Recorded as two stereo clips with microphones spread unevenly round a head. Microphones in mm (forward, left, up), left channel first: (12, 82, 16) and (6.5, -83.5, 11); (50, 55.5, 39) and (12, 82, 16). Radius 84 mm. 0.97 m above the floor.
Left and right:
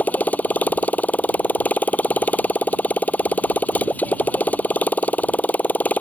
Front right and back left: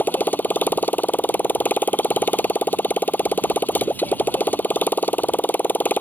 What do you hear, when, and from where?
0.0 s a motorcycle: 10° left